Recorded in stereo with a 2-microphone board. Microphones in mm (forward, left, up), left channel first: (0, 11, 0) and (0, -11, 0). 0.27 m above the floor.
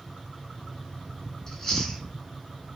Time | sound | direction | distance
1.5 | chewing | 15° left (ahead or behind) | 1.4 m